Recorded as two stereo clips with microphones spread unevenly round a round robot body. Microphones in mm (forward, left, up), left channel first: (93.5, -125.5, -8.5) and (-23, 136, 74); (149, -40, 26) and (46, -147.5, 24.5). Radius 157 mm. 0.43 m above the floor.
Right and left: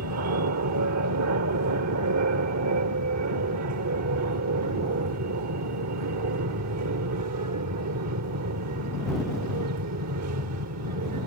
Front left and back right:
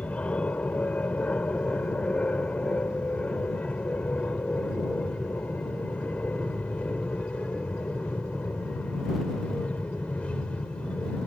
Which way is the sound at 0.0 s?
125° left.